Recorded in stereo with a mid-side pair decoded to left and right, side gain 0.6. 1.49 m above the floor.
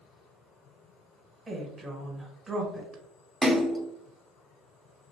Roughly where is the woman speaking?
Ahead right.